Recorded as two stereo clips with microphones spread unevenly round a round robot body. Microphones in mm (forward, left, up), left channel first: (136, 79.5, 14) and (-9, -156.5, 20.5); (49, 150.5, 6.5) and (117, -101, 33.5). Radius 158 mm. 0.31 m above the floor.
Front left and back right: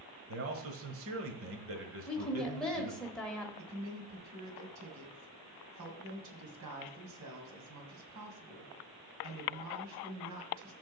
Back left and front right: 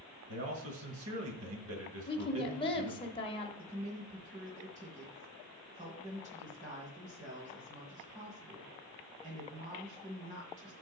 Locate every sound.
0.3 s a man speaking: 100° right, 1.3 m
2.1 s a woman speaking: 140° left, 1.0 m
3.6 s a woman speaking: 145° right, 2.0 m